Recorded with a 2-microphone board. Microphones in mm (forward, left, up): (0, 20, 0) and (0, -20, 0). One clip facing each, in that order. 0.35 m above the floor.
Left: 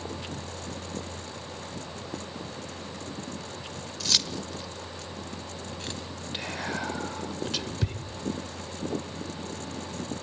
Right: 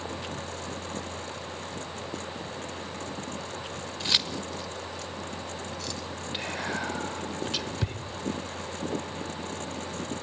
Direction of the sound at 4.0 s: 30° right (ahead or behind).